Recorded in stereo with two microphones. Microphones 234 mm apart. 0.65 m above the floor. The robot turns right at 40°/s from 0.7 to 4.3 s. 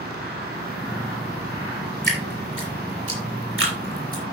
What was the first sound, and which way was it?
Dripping, 50° right (ahead or behind).